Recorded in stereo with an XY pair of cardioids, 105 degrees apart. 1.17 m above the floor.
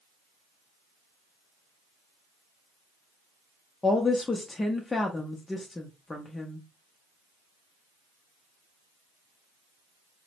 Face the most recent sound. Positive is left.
turn(degrees=20)